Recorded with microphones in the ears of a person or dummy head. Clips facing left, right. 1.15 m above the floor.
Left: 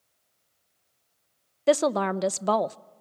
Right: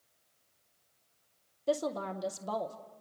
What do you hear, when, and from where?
1.7 s a woman speaking: 75° left (ahead or behind), 0.6 m